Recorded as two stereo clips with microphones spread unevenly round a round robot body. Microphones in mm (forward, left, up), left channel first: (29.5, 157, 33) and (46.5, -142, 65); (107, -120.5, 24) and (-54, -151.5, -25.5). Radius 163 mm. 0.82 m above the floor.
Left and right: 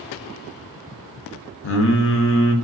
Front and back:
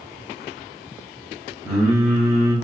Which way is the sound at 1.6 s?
120° left.